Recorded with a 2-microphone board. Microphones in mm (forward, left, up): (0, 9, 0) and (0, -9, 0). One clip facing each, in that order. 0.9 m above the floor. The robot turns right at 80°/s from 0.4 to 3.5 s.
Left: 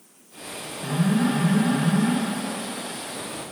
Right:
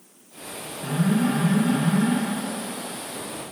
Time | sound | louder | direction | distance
0.8 | an alarm | even | 25° left | 4 m